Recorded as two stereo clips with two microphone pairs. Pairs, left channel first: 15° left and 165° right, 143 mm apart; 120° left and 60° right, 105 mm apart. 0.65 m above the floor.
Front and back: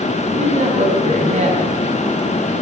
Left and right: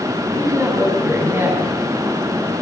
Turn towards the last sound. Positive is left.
turn(degrees=-125)